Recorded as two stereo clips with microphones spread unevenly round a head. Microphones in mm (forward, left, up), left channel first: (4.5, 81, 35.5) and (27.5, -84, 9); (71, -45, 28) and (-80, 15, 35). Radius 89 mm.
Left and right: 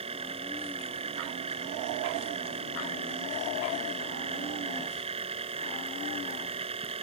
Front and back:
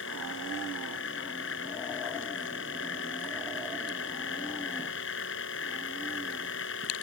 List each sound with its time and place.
0.0 s a machine running: 25° right